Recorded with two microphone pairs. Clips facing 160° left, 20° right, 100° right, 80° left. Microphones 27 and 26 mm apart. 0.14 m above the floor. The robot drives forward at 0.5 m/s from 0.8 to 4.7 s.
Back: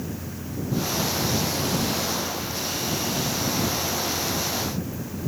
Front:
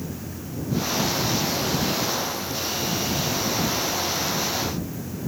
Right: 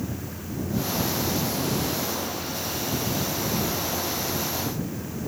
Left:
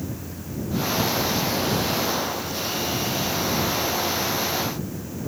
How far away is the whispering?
I don't hear whispering.